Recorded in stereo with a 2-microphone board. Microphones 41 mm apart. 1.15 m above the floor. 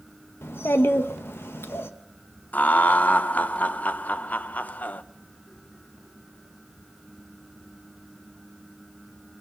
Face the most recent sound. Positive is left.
turn(degrees=40)  # may be behind; listen again after turning